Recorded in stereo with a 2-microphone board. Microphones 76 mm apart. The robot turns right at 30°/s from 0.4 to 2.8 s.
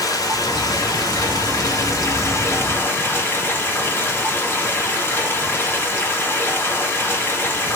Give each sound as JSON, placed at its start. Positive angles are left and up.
{"t": 0.0, "sound": "running water", "azimuth_deg": 75, "distance_m": 1.3}